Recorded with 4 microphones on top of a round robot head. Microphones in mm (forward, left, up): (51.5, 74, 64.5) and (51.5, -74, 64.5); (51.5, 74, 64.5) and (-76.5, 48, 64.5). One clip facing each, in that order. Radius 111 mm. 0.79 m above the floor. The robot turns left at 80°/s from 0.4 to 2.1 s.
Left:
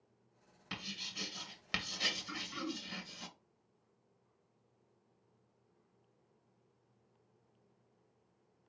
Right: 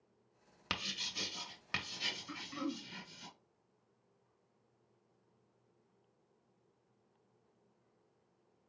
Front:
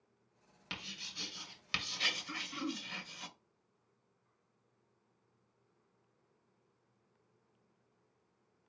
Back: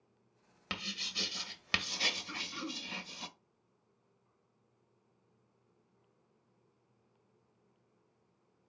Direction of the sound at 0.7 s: 115° right.